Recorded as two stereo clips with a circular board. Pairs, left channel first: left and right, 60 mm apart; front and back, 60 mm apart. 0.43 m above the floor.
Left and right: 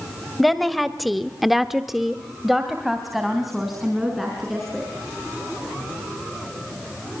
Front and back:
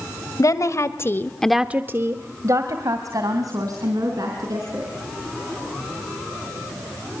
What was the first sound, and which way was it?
A woman speaking, straight ahead.